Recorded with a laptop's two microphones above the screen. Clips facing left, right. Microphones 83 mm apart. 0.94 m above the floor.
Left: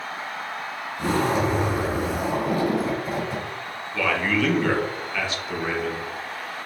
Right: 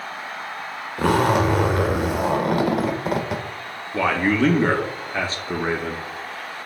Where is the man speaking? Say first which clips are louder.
Right 4 dB; 35° right (ahead or behind), 0.7 m.